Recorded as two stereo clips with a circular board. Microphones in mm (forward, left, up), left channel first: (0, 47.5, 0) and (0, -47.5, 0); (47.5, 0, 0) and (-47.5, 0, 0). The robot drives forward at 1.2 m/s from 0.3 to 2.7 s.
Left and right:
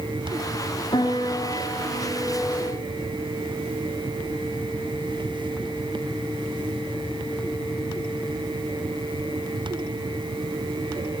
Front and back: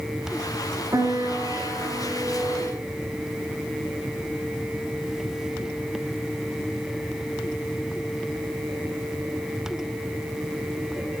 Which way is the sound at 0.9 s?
125° left.